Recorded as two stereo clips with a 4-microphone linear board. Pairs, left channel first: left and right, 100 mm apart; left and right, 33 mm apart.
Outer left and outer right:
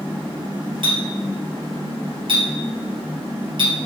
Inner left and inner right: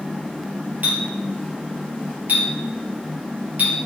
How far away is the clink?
About 2.5 m.